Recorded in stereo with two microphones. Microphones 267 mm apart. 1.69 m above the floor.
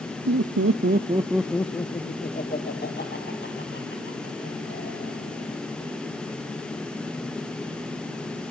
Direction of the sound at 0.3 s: 75° right (ahead or behind).